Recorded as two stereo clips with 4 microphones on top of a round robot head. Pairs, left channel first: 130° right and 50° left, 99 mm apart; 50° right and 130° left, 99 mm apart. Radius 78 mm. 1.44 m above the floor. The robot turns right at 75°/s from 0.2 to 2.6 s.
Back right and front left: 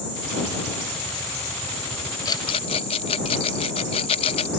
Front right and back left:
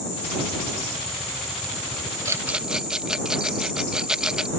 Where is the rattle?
175° right; by 4.5 s 150° right.